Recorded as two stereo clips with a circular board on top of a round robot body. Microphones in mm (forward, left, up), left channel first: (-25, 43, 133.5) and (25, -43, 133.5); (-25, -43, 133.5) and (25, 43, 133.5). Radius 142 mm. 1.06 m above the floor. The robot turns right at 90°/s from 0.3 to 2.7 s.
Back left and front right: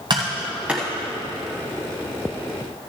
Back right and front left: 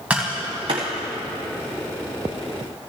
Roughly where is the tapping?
Ahead.